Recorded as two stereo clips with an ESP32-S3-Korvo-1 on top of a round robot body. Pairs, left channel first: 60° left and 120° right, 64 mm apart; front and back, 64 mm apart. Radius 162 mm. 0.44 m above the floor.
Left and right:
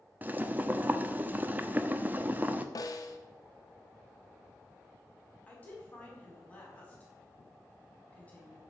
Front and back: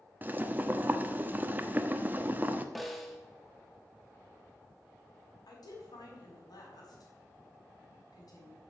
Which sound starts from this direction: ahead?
A woman speaking, at 5.5 s.